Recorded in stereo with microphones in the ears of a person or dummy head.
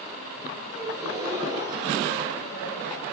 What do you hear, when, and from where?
0.7 s a gasp: 25° right (ahead or behind), 8 m